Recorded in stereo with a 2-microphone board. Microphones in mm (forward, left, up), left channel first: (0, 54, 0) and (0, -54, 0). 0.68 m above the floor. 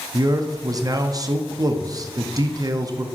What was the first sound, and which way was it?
A man speaking, 35° right (ahead or behind).